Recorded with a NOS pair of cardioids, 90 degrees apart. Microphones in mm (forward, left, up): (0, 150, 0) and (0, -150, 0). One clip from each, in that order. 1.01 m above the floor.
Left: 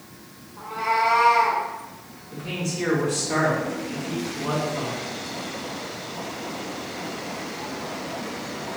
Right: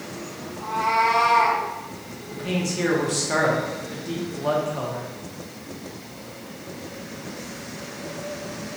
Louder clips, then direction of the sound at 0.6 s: Right 2 dB; 5° right.